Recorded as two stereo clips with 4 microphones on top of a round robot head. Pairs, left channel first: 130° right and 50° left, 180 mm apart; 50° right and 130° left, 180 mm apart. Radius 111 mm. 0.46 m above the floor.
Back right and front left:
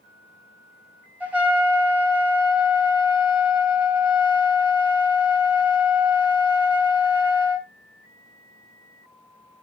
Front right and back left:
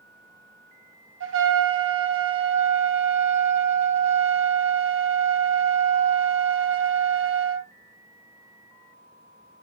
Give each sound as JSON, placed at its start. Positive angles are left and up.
{"t": 1.2, "sound": "a trumpet", "azimuth_deg": 130, "distance_m": 2.0}